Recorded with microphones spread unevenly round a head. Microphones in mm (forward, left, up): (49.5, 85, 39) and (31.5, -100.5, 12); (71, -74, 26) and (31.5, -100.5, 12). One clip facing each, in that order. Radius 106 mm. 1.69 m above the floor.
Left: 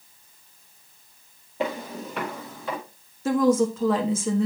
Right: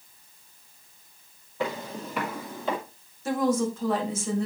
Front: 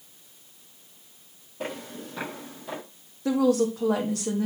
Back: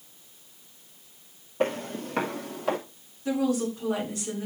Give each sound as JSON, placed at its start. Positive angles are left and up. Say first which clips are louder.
{"t": 1.6, "sound": "footsteps", "louder": "left 2 dB, back 7 dB", "azimuth_deg": 145, "distance_m": 2.5}
{"t": 3.2, "sound": "a woman speaking", "louder": "left 5 dB, front 4 dB", "azimuth_deg": 70, "distance_m": 1.6}